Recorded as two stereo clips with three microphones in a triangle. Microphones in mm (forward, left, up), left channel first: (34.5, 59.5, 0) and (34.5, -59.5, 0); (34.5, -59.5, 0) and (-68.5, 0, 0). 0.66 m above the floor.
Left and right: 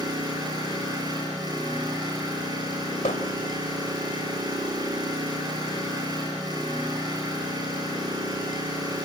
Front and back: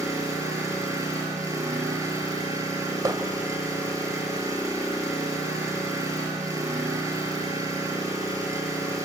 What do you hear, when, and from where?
0.0 s an engine running: 145° right, 6.5 m
3.0 s hammering: 95° left, 1.3 m